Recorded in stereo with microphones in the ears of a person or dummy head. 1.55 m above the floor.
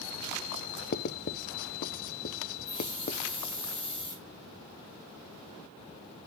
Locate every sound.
0.9 s writing: 55° left (ahead or behind), 0.6 m
2.7 s a hiss: 35° left (ahead or behind), 3.5 m